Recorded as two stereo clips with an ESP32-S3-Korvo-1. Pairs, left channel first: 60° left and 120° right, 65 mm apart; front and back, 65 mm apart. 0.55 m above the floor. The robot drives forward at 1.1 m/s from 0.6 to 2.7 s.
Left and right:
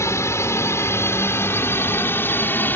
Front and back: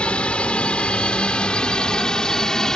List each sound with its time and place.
0.0 s a drone: 65° left; by 2.8 s 75° left